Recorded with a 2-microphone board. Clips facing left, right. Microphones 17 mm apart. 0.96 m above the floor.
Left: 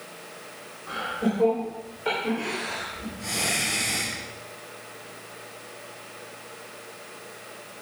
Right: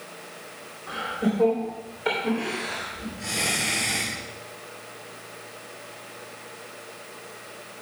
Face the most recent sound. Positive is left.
turn(degrees=-25)  # may be behind; listen again after turning